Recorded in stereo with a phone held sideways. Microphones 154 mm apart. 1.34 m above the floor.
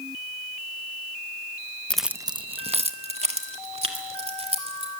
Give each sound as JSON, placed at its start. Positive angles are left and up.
{"t": 1.9, "sound": "keys jangling", "side_deg": 10, "distance_m": 0.6}